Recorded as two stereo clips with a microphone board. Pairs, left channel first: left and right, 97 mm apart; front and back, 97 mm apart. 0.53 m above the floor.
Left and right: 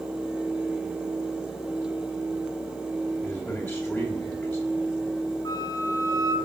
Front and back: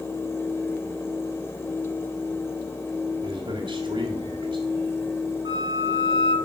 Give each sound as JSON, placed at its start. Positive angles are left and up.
{"t": 3.2, "sound": "a man speaking", "azimuth_deg": 170, "distance_m": 1.7}
{"t": 5.5, "sound": "a flute", "azimuth_deg": 140, "distance_m": 0.9}